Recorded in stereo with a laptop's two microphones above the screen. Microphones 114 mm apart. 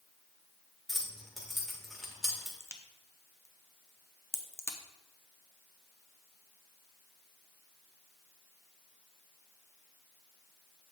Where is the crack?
25° left (ahead or behind), 0.6 m.